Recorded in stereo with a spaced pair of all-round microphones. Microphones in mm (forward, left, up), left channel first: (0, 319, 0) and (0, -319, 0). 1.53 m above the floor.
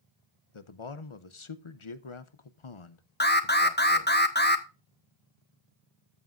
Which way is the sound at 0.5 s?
55° left (ahead or behind).